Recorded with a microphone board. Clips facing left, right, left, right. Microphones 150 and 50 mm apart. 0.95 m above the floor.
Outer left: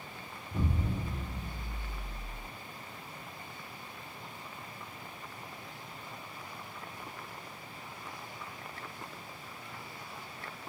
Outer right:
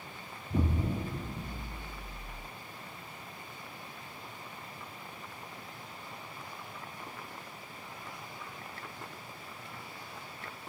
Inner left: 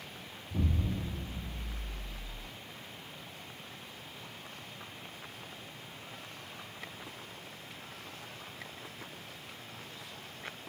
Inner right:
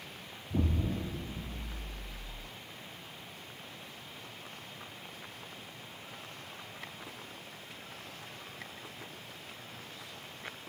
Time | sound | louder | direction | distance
0.5 | an explosion | outer right 3 dB, inner right 2 dB | 55° right (ahead or behind) | 1.2 m